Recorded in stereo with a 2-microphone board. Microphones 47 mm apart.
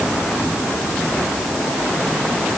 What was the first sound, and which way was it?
Only background noise.